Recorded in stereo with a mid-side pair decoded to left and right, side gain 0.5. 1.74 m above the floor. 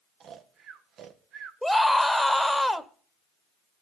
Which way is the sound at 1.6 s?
Straight ahead.